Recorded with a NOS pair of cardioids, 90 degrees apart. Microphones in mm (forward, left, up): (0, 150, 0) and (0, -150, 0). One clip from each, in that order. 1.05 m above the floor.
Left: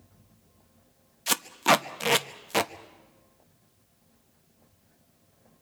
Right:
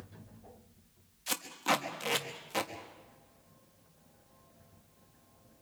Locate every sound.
1.3 s tape being pulled: 50° left, 1.1 m